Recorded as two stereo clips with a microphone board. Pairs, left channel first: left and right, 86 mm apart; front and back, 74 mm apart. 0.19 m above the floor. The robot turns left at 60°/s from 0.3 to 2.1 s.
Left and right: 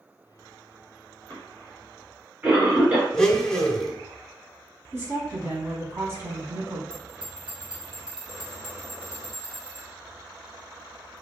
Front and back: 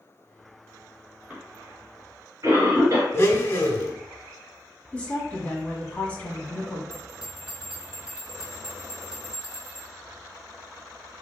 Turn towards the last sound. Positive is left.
turn(degrees=-100)